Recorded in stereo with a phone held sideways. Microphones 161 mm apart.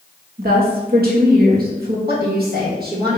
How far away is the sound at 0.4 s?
About 1.1 m.